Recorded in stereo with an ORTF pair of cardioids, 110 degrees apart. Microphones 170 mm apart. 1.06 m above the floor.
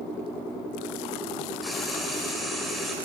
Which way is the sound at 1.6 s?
Straight ahead.